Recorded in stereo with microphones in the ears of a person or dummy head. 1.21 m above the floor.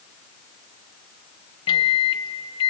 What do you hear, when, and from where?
1.7 s a microwave: 30° left (ahead or behind), 0.6 m